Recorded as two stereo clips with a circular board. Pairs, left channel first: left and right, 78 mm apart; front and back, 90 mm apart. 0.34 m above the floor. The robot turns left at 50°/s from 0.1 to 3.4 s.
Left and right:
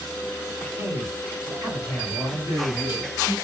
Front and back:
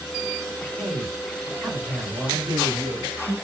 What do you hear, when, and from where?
0.8 s a man speaking: 70° right, 2 m; by 2.5 s 160° right, 2 m
2.3 s a man speaking: 140° right, 1.8 m; by 3.4 s 170° left, 1.8 m